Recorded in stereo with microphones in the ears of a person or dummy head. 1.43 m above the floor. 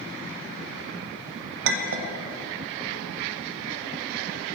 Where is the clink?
65° right (ahead or behind), 0.9 m.